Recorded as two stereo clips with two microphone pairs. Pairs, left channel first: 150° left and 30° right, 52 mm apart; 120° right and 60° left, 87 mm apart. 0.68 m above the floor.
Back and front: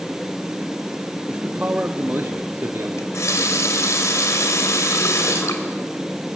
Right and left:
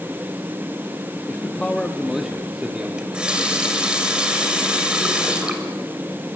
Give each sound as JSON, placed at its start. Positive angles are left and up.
{"t": 1.3, "sound": "a man speaking", "azimuth_deg": -70, "distance_m": 0.9}
{"t": 3.0, "sound": "a running tap", "azimuth_deg": 140, "distance_m": 2.5}